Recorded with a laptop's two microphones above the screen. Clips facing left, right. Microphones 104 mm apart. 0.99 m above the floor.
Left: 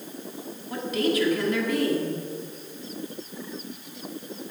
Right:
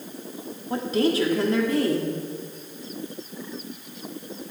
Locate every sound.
0.7 s a woman speaking: 30° right (ahead or behind), 1.8 m